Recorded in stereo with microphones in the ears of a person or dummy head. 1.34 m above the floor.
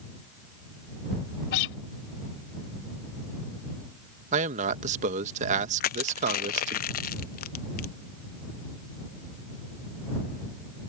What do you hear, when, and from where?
1.5 s a guitar: 60° left (ahead or behind)
4.3 s a man speaking: 40° right (ahead or behind)
5.8 s crushing: 50° left (ahead or behind)